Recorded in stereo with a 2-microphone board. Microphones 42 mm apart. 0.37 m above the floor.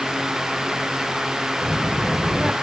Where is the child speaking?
15° right (ahead or behind), 0.7 m.